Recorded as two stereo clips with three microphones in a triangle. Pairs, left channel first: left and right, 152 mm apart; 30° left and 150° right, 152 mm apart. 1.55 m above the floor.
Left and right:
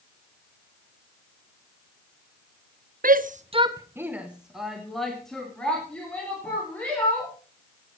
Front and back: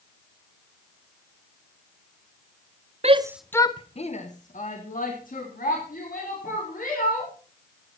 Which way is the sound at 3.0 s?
105° right.